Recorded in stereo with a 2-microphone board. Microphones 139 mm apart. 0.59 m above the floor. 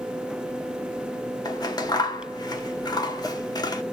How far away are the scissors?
About 0.8 m.